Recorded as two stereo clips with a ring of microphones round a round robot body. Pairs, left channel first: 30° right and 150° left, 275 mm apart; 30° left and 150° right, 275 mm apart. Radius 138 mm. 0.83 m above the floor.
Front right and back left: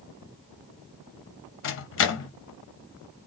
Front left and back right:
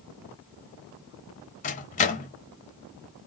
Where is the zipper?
No zipper in this recording.